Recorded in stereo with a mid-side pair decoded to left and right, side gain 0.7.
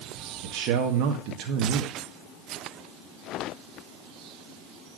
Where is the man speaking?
60° right, 1.6 m.